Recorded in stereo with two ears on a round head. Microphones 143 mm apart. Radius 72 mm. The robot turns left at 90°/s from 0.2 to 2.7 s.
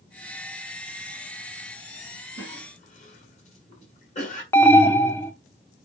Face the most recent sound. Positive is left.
turn(degrees=15)  # may be behind; listen again after turning